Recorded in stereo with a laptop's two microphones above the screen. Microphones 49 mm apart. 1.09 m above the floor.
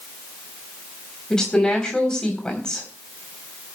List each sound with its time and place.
1.3 s a woman speaking: 15° left (ahead or behind), 3.5 m